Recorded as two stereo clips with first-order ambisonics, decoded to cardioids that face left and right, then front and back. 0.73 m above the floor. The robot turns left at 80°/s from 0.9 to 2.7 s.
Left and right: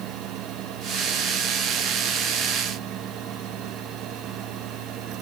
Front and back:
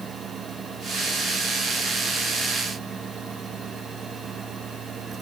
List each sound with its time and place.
Only background noise.